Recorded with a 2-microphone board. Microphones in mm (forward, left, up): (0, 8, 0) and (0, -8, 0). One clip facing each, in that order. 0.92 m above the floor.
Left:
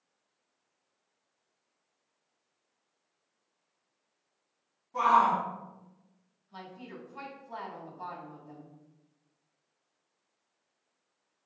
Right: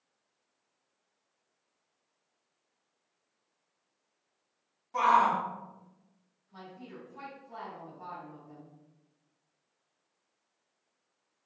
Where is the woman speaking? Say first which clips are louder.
Left 2 dB; 75° left (ahead or behind), 1.9 m.